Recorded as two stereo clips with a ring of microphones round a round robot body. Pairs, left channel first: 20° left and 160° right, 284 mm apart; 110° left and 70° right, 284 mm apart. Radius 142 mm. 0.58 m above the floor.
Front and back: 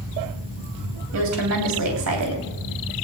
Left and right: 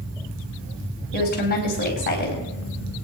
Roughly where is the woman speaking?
Behind.